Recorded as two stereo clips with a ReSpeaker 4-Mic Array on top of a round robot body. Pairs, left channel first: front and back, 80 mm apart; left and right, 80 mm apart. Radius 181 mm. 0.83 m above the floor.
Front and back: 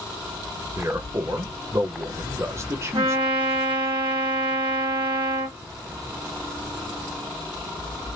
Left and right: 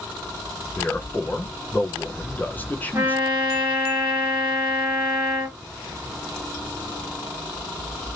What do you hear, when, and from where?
0.8 s a man speaking: 145° left, 0.8 m
2.9 s a trumpet: 150° right, 1.4 m